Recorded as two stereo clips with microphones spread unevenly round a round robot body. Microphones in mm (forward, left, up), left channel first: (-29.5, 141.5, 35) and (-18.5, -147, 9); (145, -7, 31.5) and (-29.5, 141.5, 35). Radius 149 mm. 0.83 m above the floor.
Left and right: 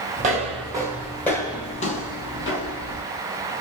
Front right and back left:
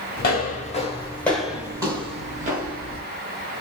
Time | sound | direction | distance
0.2 | footsteps | 30° right | 1.0 m